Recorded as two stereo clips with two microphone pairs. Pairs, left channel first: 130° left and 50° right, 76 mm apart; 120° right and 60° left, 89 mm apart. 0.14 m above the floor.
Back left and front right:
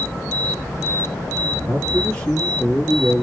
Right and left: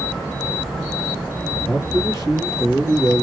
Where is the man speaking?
165° right, 2 m.